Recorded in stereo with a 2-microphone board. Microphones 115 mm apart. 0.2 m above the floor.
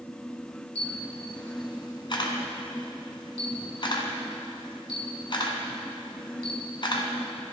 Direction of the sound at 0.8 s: 45° left (ahead or behind).